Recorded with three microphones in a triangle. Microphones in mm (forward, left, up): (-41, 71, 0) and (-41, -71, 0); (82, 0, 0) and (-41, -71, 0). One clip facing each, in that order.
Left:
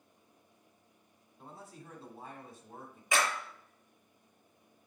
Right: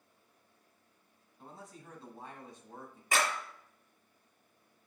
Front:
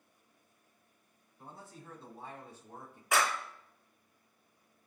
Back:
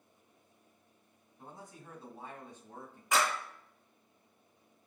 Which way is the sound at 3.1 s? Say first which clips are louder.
Even, even; 55° right.